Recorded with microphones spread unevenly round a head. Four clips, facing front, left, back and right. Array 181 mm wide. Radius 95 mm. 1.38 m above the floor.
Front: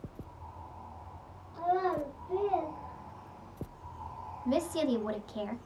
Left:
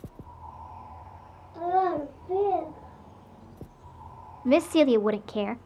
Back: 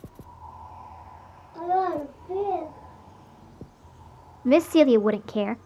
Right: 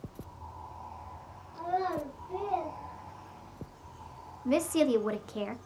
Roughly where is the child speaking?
Behind left.